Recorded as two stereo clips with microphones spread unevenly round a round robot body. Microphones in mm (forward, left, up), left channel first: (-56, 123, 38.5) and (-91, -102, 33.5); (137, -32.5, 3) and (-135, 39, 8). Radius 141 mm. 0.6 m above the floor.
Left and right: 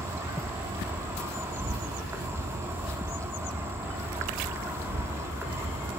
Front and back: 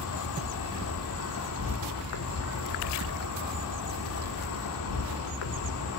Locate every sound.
0.0 s an insect: 20° right, 0.9 m